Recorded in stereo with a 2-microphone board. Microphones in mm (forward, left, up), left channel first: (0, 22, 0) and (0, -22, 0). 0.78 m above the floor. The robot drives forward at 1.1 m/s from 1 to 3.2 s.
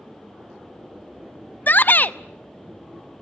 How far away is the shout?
About 0.6 m.